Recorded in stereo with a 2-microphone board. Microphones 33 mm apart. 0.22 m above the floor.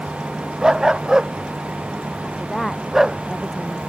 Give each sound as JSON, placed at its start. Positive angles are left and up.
{"t": 0.6, "sound": "a dog barking", "side_deg": -20}
{"t": 2.2, "sound": "a woman speaking", "side_deg": 5}